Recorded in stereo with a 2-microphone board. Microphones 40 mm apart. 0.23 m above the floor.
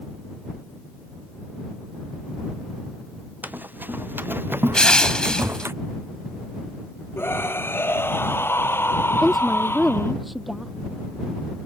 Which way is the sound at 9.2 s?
5° right (ahead or behind).